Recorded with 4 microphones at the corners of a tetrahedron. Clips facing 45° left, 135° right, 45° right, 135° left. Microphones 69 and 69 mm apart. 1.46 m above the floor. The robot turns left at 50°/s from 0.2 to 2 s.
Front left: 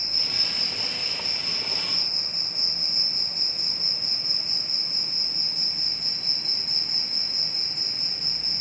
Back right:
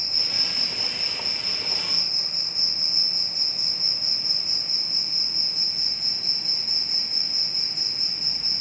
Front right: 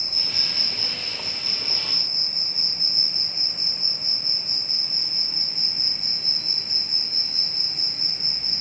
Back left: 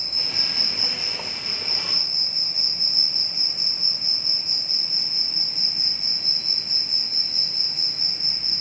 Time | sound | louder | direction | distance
0.0 | an insect | even, back left 1 dB | 95° left | 4 m